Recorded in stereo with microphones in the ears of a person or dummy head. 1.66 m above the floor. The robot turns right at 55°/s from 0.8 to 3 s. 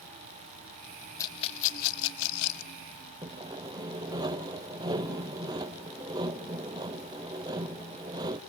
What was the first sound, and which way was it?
A rattle, 20° left (ahead or behind).